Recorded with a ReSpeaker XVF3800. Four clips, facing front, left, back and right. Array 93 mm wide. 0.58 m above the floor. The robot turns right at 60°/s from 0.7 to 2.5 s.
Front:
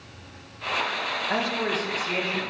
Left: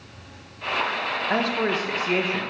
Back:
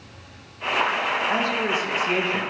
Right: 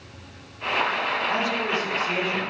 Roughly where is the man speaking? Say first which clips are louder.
Left 2 dB, back 3 dB; left.